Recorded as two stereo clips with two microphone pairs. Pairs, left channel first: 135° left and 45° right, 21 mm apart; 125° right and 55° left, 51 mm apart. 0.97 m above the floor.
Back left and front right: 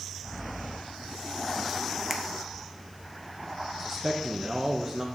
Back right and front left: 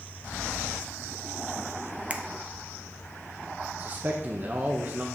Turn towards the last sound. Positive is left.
turn(degrees=20)